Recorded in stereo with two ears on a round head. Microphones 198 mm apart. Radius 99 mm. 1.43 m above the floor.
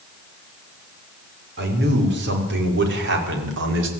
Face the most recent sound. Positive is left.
turn(degrees=-55)  # may be behind; listen again after turning